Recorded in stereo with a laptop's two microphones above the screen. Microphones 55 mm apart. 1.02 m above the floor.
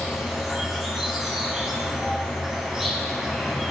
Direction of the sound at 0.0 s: 5° right (ahead or behind).